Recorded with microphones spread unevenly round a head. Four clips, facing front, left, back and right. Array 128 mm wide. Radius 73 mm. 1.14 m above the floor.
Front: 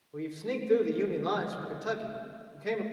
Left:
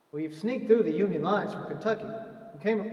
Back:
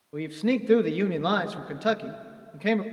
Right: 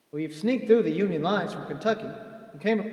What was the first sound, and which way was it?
A man speaking, 145° right.